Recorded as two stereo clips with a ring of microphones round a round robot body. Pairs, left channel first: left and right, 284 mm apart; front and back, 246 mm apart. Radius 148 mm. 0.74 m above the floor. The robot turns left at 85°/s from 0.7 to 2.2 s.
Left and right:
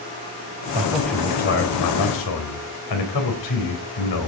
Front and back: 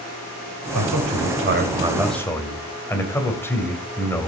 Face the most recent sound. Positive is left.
turn(degrees=80)